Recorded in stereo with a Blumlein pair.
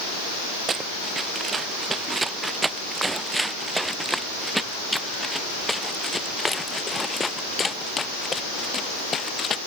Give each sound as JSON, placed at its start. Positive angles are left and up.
{"t": 0.7, "sound": "running footsteps", "azimuth_deg": -15}